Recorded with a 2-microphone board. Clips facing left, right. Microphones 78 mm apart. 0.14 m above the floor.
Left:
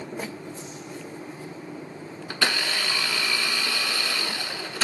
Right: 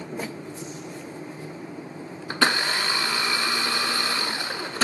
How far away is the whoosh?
About 7 m.